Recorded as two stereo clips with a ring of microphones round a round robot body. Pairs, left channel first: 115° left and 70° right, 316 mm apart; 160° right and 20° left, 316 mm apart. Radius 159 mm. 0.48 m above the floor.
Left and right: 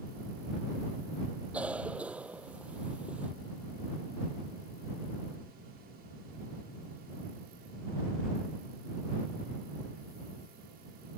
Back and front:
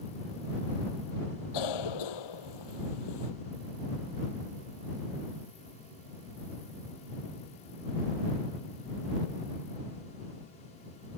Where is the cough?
155° right.